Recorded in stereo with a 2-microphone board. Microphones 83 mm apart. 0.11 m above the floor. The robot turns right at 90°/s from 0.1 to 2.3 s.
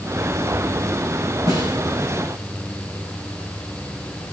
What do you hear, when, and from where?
1.5 s a snare drum: 45° right (ahead or behind), 7.5 m; by 1.8 s 65° right (ahead or behind), 7.5 m